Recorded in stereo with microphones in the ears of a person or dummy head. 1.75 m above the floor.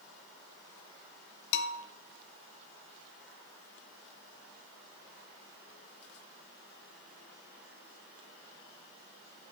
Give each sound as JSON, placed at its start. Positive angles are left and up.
{"t": 1.5, "sound": "a bell", "side_deg": 60, "distance_m": 1.0}